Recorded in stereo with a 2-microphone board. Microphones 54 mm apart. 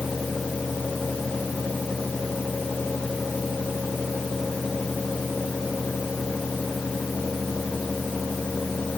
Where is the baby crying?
I don't hear a baby crying.